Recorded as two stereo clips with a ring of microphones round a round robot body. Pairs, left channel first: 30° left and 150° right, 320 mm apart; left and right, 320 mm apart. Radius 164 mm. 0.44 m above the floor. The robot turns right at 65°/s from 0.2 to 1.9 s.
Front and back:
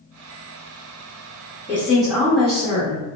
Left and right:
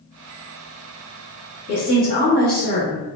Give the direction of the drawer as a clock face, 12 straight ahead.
No drawer in this recording.